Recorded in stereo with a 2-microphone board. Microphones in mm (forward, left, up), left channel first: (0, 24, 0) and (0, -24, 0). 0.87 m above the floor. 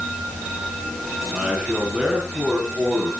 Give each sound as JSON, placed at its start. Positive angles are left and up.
{"t": 1.3, "sound": "a man speaking", "side_deg": -20, "distance_m": 7.0}